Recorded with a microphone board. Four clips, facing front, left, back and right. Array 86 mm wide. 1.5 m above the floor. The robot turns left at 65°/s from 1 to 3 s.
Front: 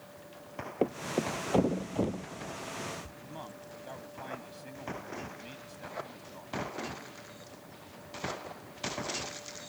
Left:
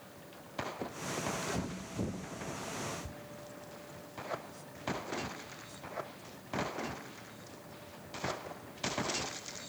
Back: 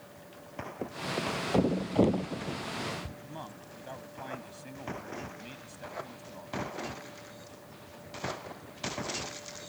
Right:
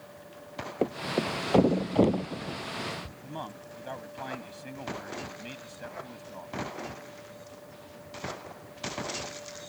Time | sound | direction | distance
0.8 | a thud | 50° right | ?
3.2 | a man speaking | 95° right | ?